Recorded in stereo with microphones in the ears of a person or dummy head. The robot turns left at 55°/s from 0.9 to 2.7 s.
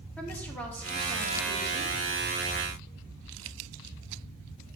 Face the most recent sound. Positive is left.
turn(degrees=-90)